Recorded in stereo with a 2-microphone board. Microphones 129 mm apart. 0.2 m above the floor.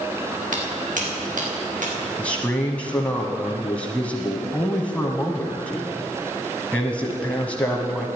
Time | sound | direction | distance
0.5 | footsteps | 75° right (ahead or behind) | 4.5 m
2.2 | a man speaking | 10° left (ahead or behind) | 1.1 m